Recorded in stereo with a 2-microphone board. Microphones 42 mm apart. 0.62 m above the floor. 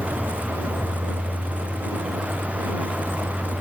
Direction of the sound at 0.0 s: 80° right.